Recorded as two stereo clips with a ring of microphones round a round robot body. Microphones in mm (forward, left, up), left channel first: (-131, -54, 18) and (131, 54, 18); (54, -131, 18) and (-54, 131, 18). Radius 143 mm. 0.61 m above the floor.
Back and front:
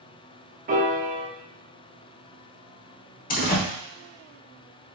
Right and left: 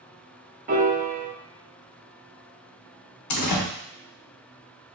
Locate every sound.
0.7 s a piano: 70° left, 0.9 m
3.3 s a door slam: 95° right, 1.0 m